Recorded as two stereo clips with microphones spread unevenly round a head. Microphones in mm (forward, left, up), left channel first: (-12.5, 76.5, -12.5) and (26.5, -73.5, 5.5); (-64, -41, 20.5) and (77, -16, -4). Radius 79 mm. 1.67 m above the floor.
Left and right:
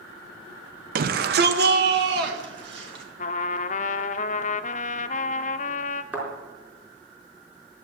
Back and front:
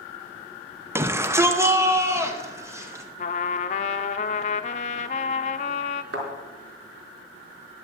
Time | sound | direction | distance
0.9 | a shout | 65° right | 0.7 m
3.2 | a trumpet | 150° left | 0.5 m
6.1 | a thud | straight ahead | 4.5 m